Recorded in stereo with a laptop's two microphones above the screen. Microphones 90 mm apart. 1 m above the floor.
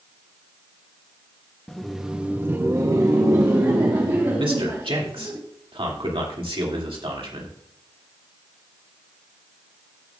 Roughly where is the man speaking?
Right.